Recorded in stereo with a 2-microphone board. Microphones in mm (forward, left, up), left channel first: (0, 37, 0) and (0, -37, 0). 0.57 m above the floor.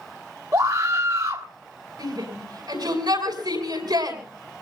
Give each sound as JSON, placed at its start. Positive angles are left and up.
{"t": 0.5, "sound": "a scream", "side_deg": -50, "distance_m": 1.2}
{"t": 2.0, "sound": "a shout", "side_deg": -75, "distance_m": 6.5}